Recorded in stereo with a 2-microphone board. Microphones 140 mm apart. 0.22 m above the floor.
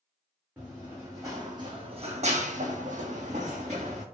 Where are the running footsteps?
15° right (ahead or behind), 1.3 m; by 4.0 s 55° right (ahead or behind), 1.2 m.